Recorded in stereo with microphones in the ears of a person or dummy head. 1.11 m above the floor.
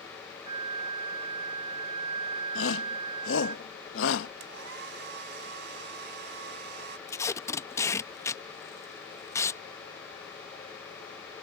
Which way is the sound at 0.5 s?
30° right (ahead or behind).